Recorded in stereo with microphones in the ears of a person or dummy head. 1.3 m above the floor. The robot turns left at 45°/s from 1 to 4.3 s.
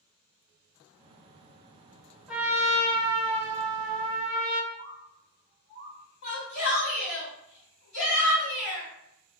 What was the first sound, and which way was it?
A trumpet, 5° right.